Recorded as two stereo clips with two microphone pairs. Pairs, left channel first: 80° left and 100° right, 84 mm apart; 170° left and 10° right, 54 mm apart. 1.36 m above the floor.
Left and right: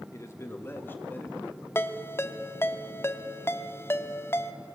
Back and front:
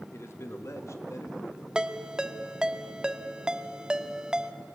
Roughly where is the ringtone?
Ahead left.